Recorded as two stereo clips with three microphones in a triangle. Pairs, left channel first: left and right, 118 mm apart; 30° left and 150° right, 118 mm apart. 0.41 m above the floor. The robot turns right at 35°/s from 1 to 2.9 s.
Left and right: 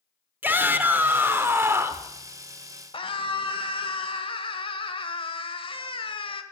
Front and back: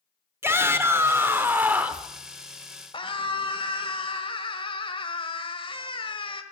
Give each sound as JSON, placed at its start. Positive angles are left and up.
{"t": 0.4, "sound": "a shout", "azimuth_deg": -130, "distance_m": 1.2}
{"t": 2.9, "sound": "a scream", "azimuth_deg": 60, "distance_m": 1.4}